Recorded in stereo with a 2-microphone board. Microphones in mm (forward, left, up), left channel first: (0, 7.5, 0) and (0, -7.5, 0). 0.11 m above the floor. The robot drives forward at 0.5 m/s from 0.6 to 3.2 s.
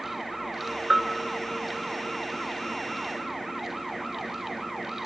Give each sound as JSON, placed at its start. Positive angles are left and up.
{"t": 0.9, "sound": "a bell", "side_deg": -15, "distance_m": 1.6}